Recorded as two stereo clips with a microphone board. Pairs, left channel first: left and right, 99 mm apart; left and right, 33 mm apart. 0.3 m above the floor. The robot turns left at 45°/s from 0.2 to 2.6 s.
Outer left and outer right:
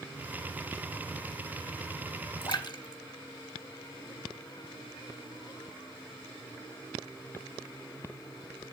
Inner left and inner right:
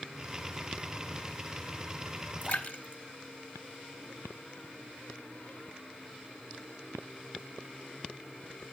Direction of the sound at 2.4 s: 50° left (ahead or behind).